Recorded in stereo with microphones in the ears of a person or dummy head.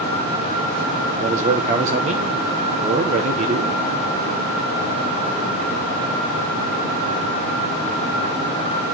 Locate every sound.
1.2 s a man speaking: 40° right (ahead or behind), 1.1 m